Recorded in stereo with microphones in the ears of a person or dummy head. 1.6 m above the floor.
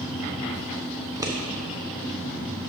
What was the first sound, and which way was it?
A fan, 15° right (ahead or behind).